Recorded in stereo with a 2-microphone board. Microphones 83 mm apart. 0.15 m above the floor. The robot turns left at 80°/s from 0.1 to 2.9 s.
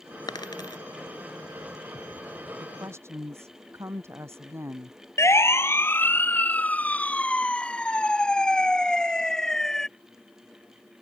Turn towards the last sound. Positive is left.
turn(degrees=5)  # may be behind; listen again after turning